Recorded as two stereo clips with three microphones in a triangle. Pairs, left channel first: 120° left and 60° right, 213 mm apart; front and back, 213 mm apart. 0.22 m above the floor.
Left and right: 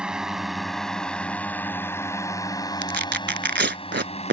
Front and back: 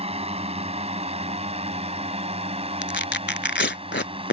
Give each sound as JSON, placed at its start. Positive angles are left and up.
{"t": 0.0, "sound": "a drone", "azimuth_deg": -145}
{"t": 2.8, "sound": "tearing paper", "azimuth_deg": -30}